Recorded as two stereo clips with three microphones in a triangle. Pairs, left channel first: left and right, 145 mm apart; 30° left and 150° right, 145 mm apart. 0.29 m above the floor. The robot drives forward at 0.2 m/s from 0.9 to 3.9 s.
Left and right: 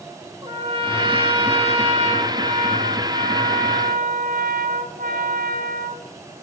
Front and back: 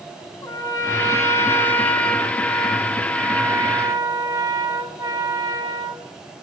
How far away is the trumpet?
About 0.9 m.